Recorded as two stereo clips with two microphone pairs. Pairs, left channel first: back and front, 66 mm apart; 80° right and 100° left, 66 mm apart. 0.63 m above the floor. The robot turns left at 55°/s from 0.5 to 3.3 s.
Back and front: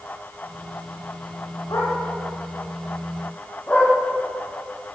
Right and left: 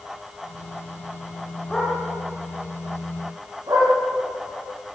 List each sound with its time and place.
1.7 s a dog barking: 155° right, 10 m; by 3.9 s 115° left, 10 m